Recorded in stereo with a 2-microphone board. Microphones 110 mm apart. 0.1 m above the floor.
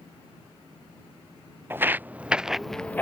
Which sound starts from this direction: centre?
Footsteps, at 1.7 s.